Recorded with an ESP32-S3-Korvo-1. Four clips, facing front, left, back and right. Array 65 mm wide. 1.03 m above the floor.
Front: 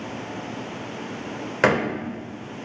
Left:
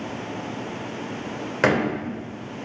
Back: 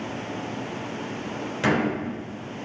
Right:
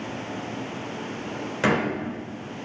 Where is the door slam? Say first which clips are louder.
Left 3 dB, front 3 dB; 30° left, 3 m.